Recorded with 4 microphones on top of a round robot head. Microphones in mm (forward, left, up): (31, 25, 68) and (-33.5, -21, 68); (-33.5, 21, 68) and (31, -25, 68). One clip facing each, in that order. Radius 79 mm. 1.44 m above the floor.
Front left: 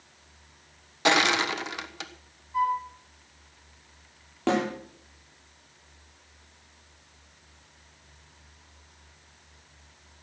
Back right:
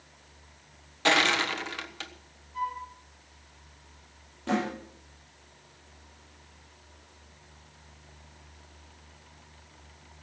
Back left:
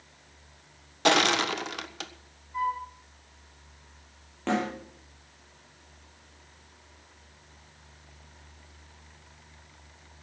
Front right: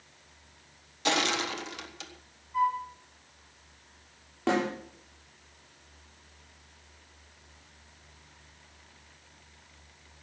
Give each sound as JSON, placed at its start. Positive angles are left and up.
{"t": 1.1, "sound": "crushing", "azimuth_deg": 110, "distance_m": 1.3}
{"t": 2.5, "sound": "a flute", "azimuth_deg": 55, "distance_m": 8.0}
{"t": 4.5, "sound": "a snare drum", "azimuth_deg": 45, "distance_m": 8.0}